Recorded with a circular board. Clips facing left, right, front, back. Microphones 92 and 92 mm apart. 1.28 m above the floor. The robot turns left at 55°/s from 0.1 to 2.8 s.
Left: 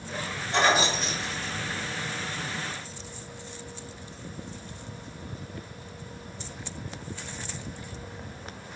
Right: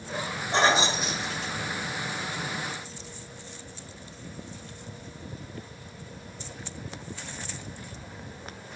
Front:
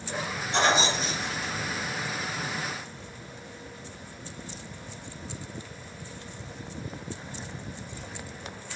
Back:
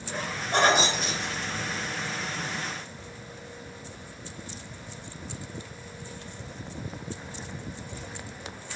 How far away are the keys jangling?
About 0.9 m.